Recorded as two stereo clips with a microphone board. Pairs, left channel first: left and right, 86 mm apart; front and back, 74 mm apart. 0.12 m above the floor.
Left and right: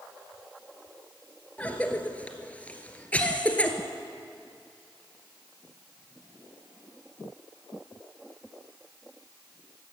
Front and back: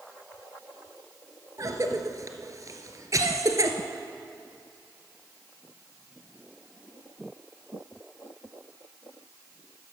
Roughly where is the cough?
Behind.